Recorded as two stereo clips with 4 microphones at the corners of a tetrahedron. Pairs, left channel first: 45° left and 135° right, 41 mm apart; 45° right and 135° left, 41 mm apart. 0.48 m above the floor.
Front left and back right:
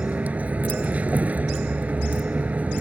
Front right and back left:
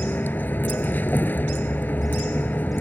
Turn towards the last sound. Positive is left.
turn(degrees=-80)